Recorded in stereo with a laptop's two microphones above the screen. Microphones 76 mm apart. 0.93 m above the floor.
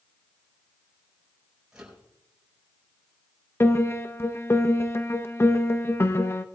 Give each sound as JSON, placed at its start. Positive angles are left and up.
{"t": 1.7, "sound": "a microwave", "side_deg": -10, "distance_m": 4.5}
{"t": 3.6, "sound": "a piano", "side_deg": 30, "distance_m": 0.6}